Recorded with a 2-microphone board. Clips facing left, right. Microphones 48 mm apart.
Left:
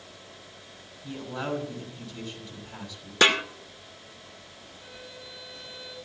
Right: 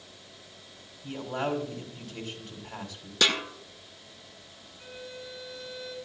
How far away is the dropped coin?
No dropped coin in this recording.